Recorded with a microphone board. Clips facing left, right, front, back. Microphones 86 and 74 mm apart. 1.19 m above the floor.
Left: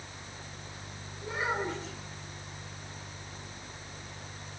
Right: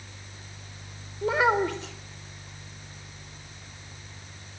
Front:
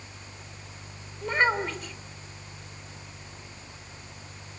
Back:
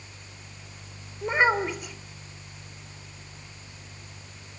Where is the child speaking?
100° right, 3.5 m.